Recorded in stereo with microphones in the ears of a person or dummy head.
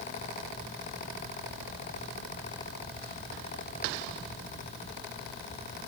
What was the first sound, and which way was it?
Only background noise.